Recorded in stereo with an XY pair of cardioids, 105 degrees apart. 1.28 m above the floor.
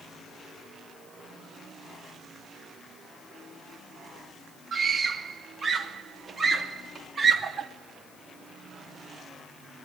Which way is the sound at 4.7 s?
30° right.